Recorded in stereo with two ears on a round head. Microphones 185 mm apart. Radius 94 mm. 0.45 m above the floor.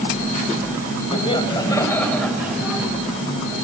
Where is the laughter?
25° left (ahead or behind), 3 m; by 2.9 s 15° right (ahead or behind), 2 m.